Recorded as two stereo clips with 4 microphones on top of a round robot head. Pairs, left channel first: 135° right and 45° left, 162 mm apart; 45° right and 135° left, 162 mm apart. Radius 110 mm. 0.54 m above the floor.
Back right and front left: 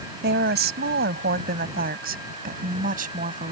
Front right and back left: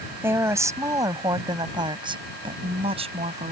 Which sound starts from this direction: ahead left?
A woman speaking, at 0.2 s.